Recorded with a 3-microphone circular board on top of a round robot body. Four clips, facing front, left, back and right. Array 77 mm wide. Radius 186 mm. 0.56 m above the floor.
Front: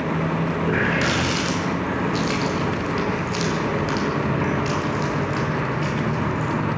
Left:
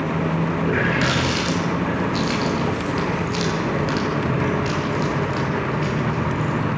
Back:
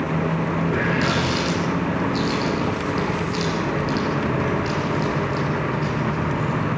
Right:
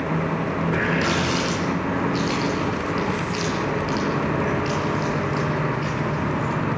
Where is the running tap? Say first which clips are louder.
Left 1 dB, front 1 dB; 55° left, 10 m.